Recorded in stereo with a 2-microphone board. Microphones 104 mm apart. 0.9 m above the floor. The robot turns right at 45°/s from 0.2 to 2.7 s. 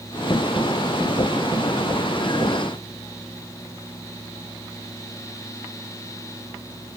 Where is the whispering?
No whispering in this recording.